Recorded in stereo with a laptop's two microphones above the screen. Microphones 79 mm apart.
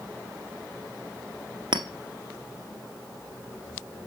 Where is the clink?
80° right, 0.7 m.